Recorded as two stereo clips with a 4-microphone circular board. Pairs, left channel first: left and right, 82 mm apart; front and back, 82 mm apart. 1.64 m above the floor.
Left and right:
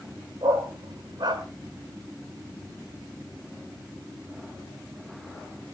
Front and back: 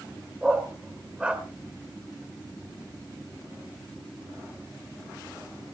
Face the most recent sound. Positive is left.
turn(degrees=-105)